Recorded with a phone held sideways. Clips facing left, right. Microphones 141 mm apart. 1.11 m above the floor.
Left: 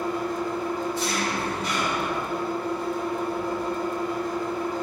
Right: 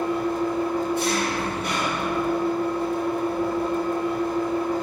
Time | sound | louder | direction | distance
0.0 | an engine running | right 4 dB | 60° right (ahead or behind) | 3 m